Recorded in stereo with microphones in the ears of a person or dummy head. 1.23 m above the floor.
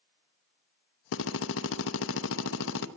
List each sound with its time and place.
1.1 s a drill: 70° left (ahead or behind), 0.8 m